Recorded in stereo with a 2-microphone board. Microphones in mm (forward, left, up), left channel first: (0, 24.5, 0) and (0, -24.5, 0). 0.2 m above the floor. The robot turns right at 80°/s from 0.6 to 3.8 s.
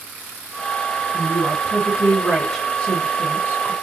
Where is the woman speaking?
40° right (ahead or behind), 1.5 m; by 3.7 s 35° left (ahead or behind), 1.5 m.